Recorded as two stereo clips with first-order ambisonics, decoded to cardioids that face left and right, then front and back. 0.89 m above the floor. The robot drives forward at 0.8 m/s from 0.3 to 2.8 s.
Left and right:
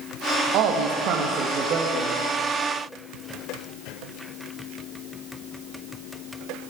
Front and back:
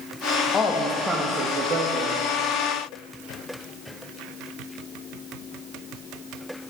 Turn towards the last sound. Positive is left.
turn(degrees=-160)